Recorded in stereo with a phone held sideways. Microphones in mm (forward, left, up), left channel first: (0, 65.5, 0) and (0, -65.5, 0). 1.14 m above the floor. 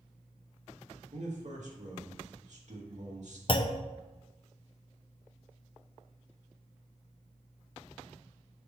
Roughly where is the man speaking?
Right.